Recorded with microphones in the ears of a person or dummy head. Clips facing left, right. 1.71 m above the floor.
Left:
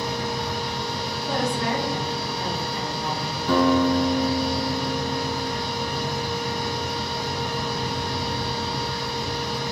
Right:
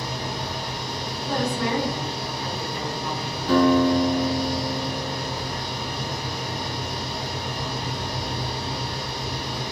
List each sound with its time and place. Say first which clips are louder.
0.0 s a machine running: left 3 dB; 75° left (ahead or behind), 1.7 m
1.2 s a woman speaking: even; 25° left (ahead or behind), 0.8 m
3.5 s a guitar: right 2 dB; 85° left, 1.8 m